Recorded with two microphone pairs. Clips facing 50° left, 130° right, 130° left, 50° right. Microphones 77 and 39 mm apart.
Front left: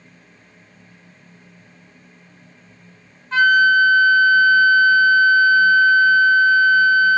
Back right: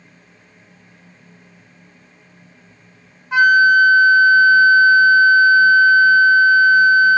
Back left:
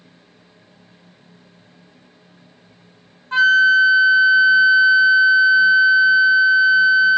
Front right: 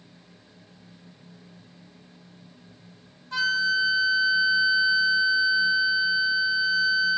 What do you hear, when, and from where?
3.3 s a flute: 160° left, 0.9 m